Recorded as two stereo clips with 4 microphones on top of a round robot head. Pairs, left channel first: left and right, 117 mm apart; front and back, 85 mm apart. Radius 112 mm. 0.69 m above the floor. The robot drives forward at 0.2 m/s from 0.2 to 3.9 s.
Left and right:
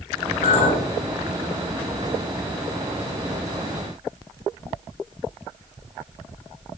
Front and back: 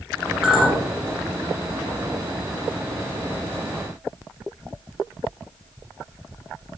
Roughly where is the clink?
Left.